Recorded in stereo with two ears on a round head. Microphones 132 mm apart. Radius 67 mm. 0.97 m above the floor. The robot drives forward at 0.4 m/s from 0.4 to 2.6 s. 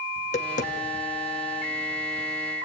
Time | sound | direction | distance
0.2 | tapping | 50° left (ahead or behind) | 1.7 m